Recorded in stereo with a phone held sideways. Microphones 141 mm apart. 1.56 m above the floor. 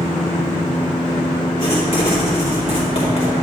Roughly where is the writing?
Left.